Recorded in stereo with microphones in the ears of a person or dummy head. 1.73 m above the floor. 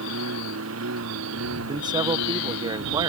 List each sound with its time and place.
0.0 s a lawn mower: 80° right
1.7 s a man speaking: 20° right (ahead or behind)